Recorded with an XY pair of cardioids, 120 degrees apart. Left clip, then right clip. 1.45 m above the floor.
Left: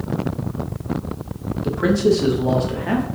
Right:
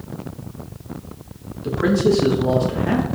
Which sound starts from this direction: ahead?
A man speaking, at 1.6 s.